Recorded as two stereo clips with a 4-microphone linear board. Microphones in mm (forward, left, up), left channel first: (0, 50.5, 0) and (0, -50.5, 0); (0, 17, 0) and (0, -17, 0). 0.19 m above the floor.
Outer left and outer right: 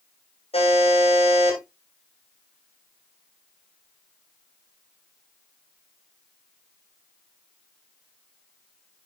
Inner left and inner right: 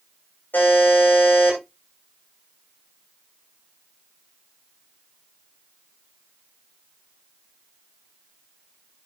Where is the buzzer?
85° left, 7.5 m.